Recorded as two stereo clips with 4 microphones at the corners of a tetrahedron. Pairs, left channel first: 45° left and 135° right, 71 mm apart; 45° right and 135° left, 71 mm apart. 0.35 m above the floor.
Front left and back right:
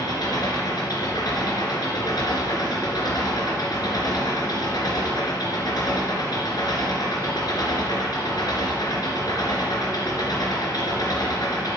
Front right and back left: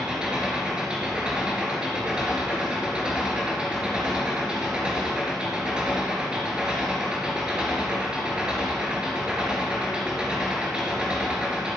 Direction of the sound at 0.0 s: 60° left.